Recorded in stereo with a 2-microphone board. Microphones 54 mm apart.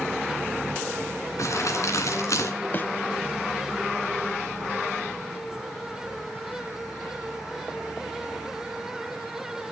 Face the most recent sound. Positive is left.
turn(degrees=40)  # may be behind; listen again after turning